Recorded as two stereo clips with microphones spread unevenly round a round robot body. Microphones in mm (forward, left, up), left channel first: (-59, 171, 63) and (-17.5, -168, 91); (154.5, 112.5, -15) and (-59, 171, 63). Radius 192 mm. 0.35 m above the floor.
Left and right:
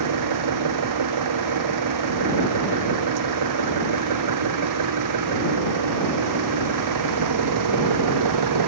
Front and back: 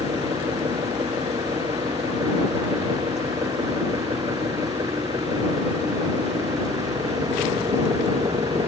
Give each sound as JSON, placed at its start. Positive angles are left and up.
{"t": 0.0, "sound": "an engine running", "azimuth_deg": -115}